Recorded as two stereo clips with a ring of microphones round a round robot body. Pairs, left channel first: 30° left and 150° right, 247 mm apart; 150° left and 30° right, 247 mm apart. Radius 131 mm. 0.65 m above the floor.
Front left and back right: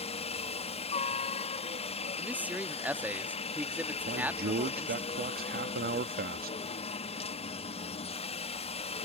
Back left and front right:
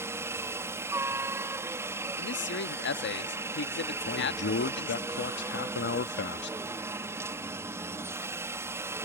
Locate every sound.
0.0 s a helicopter: 35° left
2.2 s a man speaking: 130° left
4.1 s a man speaking: 170° left